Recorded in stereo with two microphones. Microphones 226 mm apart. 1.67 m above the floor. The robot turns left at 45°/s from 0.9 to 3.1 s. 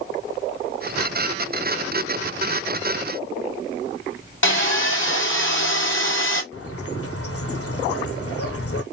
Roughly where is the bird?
Left.